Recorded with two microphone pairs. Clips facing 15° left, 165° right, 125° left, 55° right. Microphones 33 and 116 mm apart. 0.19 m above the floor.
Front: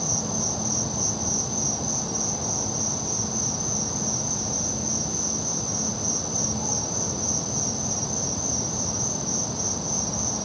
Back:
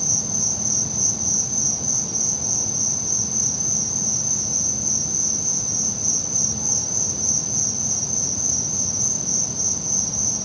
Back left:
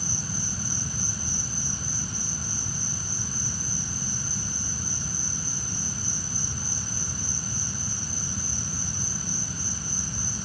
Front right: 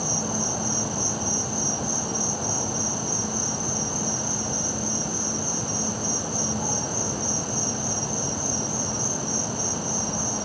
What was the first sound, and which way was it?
An insect, 50° right.